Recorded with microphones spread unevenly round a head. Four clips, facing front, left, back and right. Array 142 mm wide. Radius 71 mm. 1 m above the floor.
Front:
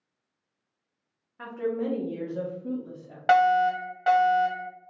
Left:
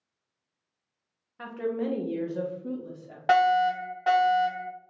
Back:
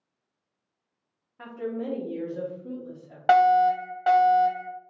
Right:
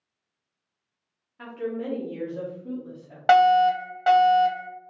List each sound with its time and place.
1.4 s a woman speaking: 160° left, 0.7 m; by 3.2 s 65° left, 1.2 m
3.3 s a fire alarm: 155° right, 1.3 m